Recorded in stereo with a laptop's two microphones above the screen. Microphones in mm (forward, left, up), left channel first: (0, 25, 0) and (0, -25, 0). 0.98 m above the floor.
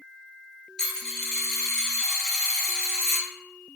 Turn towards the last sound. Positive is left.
turn(degrees=15)  # may be behind; listen again after turning